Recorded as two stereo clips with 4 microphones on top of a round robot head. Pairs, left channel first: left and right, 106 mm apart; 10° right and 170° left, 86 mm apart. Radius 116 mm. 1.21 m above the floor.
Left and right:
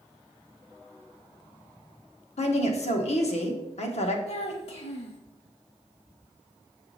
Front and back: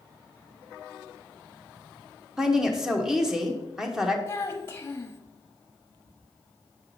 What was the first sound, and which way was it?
A woman speaking, 85° left.